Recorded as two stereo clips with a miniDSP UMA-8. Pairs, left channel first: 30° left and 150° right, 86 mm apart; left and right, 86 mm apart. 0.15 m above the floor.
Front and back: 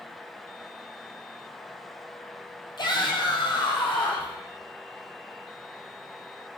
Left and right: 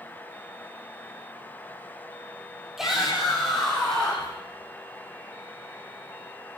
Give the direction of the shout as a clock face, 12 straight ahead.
12 o'clock.